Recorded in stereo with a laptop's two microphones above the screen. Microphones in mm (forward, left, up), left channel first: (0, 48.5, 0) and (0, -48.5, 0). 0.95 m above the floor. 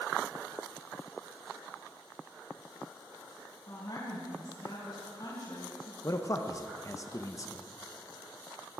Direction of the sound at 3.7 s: 50° left (ahead or behind).